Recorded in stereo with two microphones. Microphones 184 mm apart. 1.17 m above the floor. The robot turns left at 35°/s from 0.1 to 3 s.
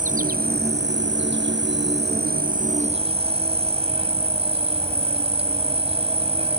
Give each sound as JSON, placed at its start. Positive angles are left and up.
{"t": 0.0, "sound": "an insect", "azimuth_deg": -45}